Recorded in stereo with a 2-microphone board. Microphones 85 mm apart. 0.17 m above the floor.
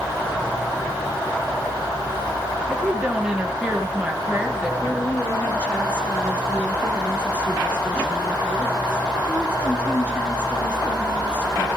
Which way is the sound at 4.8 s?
15° left (ahead or behind).